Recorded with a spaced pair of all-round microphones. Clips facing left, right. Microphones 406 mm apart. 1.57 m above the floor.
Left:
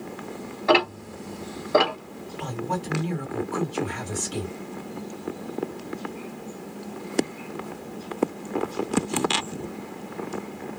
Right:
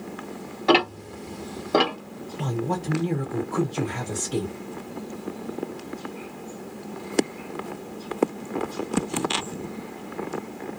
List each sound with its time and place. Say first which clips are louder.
0.7 s ticking: right 2 dB; 45° right (ahead or behind), 1.0 m
2.4 s a man speaking: right 3 dB; 60° right (ahead or behind), 1.2 m